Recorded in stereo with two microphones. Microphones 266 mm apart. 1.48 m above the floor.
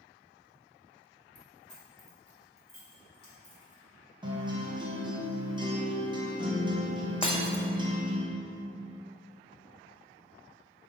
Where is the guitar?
20° right (ahead or behind), 1.0 m.